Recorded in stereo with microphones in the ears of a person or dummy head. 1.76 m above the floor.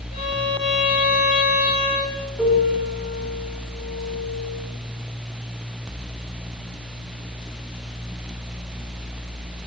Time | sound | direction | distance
0.1 | a violin | 35° left (ahead or behind) | 7 m
2.4 | a piano | centre (ahead or behind) | 4.5 m